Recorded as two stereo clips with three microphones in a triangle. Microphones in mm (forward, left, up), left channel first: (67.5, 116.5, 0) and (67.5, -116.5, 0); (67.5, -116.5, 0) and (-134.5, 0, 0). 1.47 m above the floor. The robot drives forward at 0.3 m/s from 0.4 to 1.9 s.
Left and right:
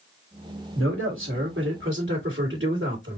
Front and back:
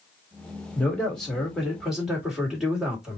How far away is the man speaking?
About 2.5 m.